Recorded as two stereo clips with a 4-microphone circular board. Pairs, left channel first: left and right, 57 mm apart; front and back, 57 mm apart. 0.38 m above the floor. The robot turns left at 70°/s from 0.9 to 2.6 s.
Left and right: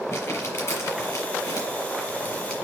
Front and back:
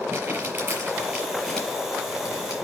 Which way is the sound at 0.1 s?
135° left.